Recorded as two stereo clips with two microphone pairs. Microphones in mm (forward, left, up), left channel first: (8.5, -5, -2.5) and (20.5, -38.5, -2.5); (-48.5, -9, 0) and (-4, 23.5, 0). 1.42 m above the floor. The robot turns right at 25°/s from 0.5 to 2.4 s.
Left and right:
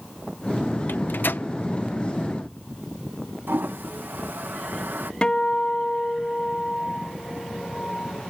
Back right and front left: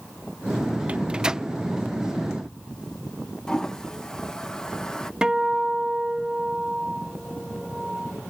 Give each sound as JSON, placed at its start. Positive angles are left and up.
{"t": 0.9, "sound": "a microwave", "azimuth_deg": 105}
{"t": 3.5, "sound": "a toilet flushing", "azimuth_deg": -70}
{"t": 5.2, "sound": "a guitar", "azimuth_deg": 95}